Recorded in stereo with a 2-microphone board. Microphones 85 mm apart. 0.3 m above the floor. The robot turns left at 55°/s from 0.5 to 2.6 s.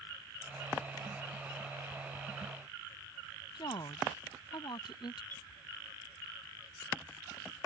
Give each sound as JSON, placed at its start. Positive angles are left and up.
{"t": 3.5, "sound": "a woman speaking", "side_deg": 60}
{"t": 5.3, "sound": "a clink", "side_deg": 20}